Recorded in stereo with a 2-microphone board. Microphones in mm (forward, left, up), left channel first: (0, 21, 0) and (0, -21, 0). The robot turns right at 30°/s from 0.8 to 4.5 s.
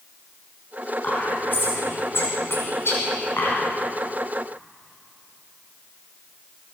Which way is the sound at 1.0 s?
40° left (ahead or behind).